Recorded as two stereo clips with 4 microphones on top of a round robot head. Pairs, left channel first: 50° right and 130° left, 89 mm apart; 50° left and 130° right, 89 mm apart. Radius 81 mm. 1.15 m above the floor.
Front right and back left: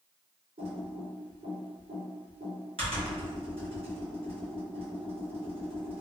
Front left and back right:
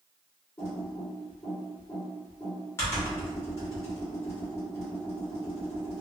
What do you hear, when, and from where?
0.6 s typing on a keyboard: 110° left, 1.2 m